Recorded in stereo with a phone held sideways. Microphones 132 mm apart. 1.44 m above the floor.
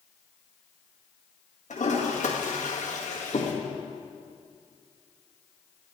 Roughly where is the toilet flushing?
Left.